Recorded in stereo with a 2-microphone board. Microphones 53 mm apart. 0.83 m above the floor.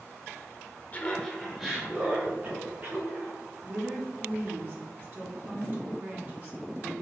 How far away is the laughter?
About 0.8 m.